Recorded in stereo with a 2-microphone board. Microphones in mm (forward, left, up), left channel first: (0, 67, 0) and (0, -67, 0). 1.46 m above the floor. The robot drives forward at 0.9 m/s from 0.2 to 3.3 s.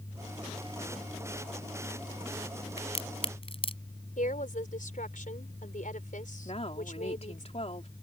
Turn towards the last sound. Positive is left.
turn(degrees=50)  # may be behind; listen again after turning